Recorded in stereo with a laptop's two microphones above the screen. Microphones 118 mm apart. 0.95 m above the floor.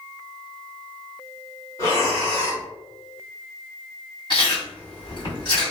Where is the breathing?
30° left (ahead or behind), 1.2 m.